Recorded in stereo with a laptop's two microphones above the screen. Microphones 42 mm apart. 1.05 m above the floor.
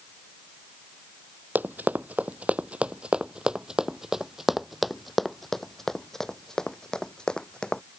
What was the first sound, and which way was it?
Running footsteps, 45° right (ahead or behind).